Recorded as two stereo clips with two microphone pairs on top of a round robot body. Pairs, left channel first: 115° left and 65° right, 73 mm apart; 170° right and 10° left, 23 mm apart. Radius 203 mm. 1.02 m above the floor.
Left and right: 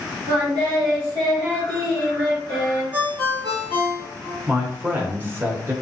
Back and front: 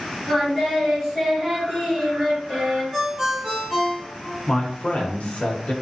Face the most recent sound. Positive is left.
turn(degrees=-130)